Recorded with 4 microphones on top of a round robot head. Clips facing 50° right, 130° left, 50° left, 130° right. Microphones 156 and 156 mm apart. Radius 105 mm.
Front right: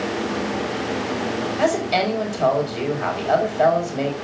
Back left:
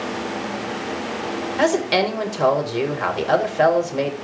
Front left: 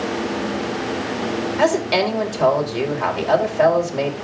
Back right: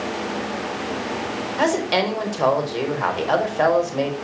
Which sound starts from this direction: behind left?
A woman speaking, at 1.6 s.